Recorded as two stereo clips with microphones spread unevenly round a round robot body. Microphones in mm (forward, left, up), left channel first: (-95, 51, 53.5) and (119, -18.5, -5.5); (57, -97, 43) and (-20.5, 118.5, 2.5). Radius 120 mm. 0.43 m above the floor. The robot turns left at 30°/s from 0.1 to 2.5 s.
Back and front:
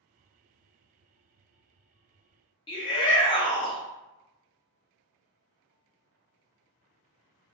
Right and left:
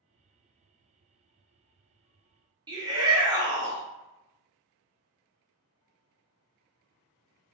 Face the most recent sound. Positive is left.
turn(degrees=85)